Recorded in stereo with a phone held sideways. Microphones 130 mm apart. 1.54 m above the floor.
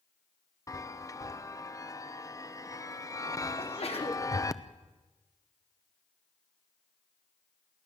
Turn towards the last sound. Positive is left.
turn(degrees=50)  # may be behind; listen again after turning